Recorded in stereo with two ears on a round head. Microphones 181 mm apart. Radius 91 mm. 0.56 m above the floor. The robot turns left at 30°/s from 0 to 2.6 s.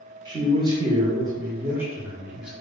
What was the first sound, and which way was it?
A man speaking, 20° right (ahead or behind).